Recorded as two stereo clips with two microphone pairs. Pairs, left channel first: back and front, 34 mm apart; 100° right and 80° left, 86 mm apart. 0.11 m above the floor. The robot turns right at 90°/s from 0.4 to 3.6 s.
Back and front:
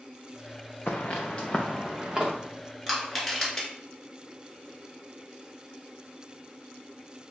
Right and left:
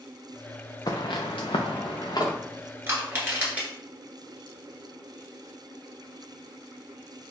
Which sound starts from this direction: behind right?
Footsteps, at 0.9 s.